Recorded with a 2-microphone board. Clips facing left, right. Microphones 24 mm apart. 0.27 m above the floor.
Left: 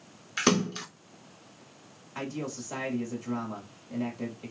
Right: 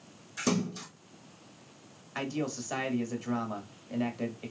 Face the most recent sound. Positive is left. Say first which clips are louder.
# right 2 dB
turn(degrees=-30)  # may be behind; listen again after turning